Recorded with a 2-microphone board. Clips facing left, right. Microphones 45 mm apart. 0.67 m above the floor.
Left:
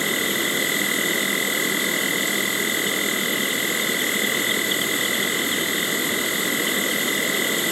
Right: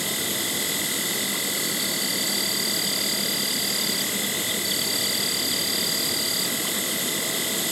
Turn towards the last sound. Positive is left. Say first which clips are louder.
# left 6 dB
turn(degrees=35)  # may be behind; listen again after turning